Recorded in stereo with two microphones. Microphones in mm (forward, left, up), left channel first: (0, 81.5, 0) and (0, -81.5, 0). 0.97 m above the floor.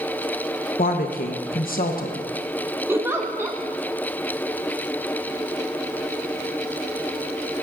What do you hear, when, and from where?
0.8 s a woman speaking: 60° left (ahead or behind), 0.9 m
2.9 s a giggle: 15° right (ahead or behind), 1.1 m